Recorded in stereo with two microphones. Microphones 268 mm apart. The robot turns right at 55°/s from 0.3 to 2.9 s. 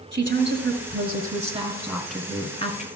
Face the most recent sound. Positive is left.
turn(degrees=45)